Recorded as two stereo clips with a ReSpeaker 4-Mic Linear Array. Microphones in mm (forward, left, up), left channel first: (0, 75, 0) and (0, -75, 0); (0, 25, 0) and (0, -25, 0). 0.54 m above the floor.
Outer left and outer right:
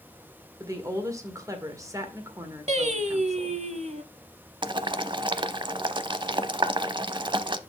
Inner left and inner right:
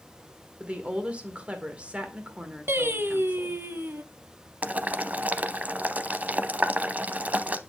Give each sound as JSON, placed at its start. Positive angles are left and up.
{"t": 0.6, "sound": "a woman speaking", "side_deg": -20, "distance_m": 1.8}
{"t": 2.7, "sound": "singing", "side_deg": -50, "distance_m": 0.9}
{"t": 4.6, "sound": "boiling", "side_deg": -30, "distance_m": 0.5}